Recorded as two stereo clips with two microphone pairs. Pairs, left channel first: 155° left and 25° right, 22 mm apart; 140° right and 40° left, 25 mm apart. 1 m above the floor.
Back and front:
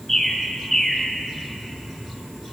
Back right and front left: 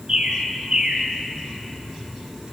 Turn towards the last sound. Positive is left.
turn(degrees=75)